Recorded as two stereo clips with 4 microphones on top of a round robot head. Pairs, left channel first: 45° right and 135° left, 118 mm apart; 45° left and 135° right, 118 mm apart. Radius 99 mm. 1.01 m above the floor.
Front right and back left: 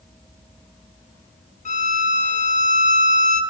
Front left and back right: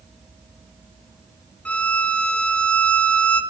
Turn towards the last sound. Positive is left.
turn(degrees=-35)